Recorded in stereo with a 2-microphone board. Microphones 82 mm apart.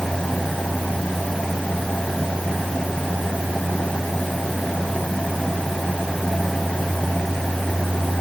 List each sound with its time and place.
Only background noise.